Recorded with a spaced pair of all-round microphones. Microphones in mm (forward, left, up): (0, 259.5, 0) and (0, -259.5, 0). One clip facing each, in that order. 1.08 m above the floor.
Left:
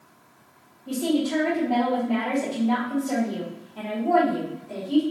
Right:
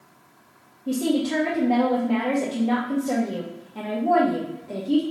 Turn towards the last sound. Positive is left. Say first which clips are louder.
# right 1 dB
turn(degrees=-80)